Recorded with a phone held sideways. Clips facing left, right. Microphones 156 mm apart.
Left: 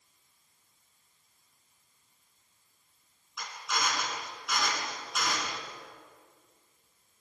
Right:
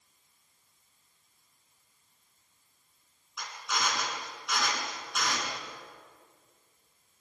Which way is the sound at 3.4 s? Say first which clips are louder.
Even; centre (ahead or behind).